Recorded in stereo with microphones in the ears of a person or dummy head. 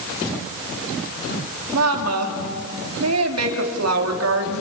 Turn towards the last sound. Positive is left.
turn(degrees=-85)